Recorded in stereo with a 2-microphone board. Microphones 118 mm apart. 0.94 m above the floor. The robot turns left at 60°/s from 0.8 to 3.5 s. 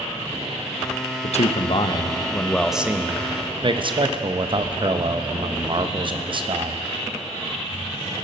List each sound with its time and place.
1.2 s a man speaking: 85° left, 0.6 m; by 6.8 s 50° right, 0.6 m